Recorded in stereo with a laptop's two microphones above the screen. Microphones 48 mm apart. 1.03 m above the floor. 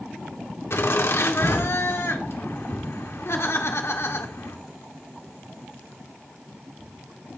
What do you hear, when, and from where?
0.7 s laughter: 65° left (ahead or behind), 2.5 m